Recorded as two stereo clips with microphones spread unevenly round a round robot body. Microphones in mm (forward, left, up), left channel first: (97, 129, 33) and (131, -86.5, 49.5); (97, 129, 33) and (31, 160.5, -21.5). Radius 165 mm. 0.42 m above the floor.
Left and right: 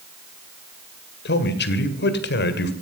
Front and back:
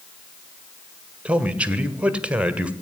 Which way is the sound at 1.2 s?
120° left.